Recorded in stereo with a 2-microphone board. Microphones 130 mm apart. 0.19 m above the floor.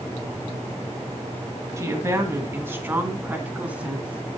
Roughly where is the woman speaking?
Right.